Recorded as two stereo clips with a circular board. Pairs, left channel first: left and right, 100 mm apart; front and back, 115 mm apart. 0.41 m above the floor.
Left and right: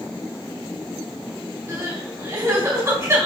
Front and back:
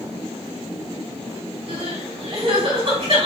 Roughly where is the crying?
Behind right.